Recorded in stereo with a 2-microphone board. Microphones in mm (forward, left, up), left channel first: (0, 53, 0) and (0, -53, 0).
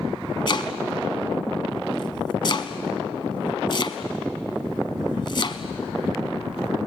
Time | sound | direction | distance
0.5 | chopping | 45° left (ahead or behind) | 1.0 m